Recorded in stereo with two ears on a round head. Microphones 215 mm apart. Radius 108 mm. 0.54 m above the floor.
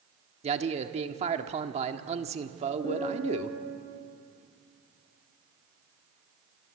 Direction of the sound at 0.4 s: 25° right (ahead or behind).